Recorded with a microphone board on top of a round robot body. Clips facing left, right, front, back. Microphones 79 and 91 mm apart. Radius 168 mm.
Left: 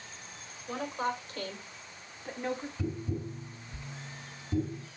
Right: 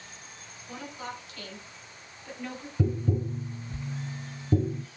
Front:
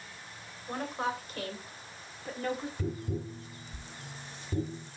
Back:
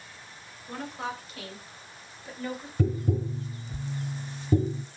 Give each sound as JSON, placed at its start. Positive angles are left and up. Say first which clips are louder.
{"t": 0.7, "sound": "a woman speaking", "louder": "left 6 dB, front 2 dB", "azimuth_deg": 45, "distance_m": 3.5}
{"t": 2.8, "sound": "tapping", "louder": "right 6 dB, back 7 dB", "azimuth_deg": -140, "distance_m": 0.7}